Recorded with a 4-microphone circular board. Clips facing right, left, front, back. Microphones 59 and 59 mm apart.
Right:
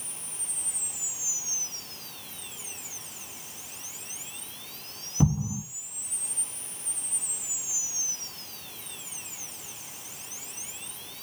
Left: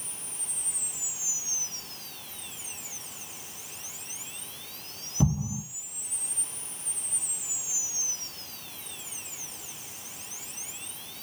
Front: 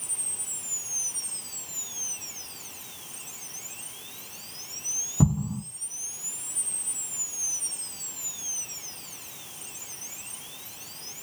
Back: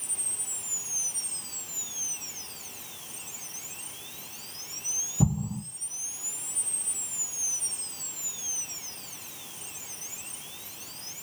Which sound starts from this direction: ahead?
An explosion, at 5.2 s.